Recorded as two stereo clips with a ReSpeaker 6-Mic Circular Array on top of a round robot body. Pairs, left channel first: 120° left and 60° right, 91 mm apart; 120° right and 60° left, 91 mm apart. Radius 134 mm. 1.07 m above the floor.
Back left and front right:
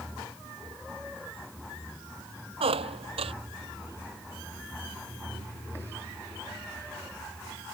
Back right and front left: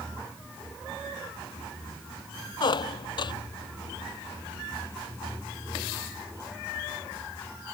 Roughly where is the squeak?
Right.